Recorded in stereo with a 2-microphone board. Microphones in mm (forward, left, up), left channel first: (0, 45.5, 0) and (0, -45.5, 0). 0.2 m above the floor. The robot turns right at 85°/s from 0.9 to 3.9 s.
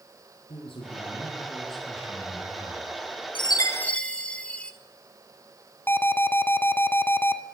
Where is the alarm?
25° left (ahead or behind), 1.3 m.